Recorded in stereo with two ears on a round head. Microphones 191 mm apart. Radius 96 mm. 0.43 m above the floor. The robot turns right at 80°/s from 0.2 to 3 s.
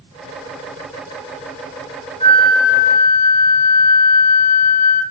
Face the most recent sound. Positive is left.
turn(degrees=-140)